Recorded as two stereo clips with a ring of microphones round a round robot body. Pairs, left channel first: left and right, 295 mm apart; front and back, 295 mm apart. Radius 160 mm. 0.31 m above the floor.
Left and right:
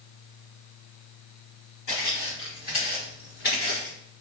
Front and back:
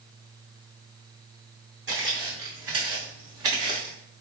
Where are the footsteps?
125° left, 1.4 m; by 4.0 s 155° left, 2 m.